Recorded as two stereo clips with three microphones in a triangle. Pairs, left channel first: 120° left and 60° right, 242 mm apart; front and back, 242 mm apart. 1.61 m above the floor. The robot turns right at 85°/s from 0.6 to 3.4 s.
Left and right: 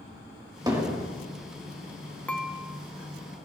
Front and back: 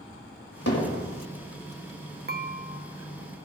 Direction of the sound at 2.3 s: 160° right.